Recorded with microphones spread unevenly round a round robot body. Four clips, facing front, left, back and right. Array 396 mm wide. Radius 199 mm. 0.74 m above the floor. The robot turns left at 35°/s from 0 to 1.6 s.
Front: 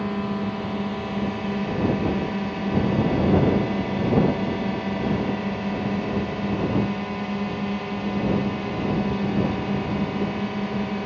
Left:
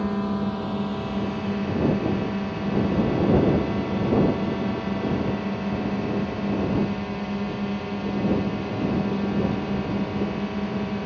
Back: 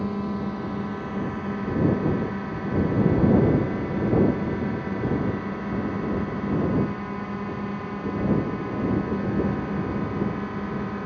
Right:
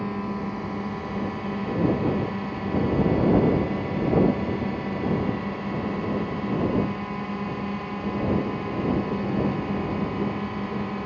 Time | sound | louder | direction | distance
0.0 | a drone | left 4 dB, front 2 dB | 90° left | ?